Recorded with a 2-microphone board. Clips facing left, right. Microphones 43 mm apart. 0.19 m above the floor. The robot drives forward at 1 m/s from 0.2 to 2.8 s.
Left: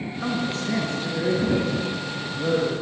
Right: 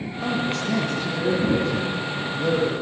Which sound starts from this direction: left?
A man speaking, at 0.2 s.